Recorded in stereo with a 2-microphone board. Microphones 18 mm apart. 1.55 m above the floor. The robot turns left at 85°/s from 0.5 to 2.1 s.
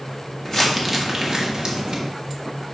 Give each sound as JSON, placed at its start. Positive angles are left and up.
{"t": 0.5, "sound": "crumpling", "side_deg": 20, "distance_m": 1.5}